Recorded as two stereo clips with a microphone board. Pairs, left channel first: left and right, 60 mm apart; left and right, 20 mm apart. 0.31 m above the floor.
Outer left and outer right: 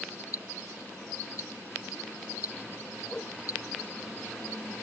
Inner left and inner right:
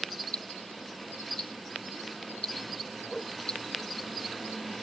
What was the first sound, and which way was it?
Ticking, 65° left (ahead or behind).